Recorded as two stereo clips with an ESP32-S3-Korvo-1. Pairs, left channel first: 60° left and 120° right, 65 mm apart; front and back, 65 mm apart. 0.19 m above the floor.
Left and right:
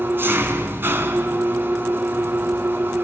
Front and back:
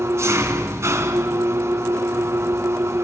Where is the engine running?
160° right, 1.7 m.